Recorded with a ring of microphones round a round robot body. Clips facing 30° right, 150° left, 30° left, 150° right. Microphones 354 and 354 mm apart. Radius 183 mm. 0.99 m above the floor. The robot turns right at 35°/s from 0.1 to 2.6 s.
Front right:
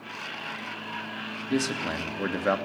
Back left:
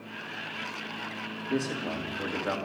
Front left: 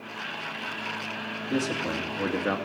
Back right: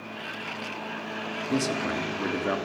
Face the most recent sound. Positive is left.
turn(degrees=-55)